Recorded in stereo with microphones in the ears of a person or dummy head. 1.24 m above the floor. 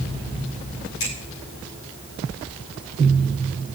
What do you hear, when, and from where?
1.0 s a finger snap: 80° left, 7.5 m